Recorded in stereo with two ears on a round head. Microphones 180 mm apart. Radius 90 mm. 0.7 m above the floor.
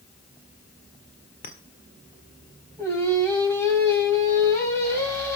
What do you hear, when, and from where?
1.4 s a clink: 45° left (ahead or behind), 1.6 m
2.8 s singing: 15° left (ahead or behind), 3.5 m